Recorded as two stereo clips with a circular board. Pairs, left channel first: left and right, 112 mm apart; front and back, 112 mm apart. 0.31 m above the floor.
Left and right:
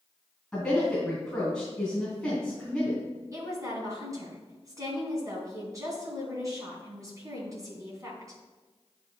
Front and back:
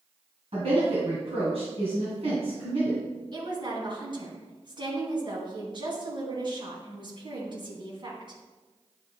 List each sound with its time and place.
0.5 s a woman speaking: 175° left, 2.5 m
3.3 s a woman speaking: 145° right, 2.5 m